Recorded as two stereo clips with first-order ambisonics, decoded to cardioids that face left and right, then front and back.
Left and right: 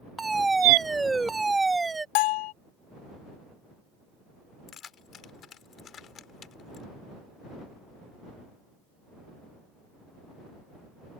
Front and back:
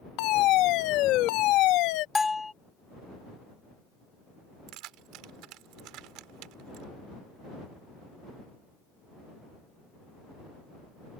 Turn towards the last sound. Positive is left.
turn(degrees=150)